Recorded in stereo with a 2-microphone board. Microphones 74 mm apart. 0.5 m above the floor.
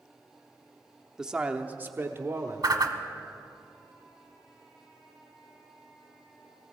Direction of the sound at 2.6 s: 60° right (ahead or behind).